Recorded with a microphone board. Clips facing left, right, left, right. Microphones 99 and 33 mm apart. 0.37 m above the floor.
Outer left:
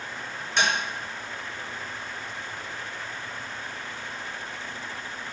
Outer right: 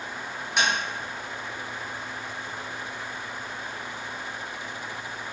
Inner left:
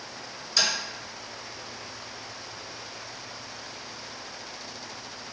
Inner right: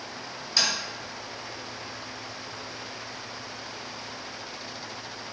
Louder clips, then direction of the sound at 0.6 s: Even, even; 15° right (ahead or behind).